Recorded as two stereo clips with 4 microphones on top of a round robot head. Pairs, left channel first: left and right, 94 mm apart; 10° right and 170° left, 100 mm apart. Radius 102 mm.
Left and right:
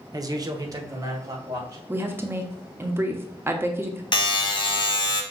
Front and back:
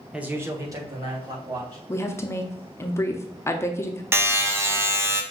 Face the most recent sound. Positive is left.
turn(degrees=110)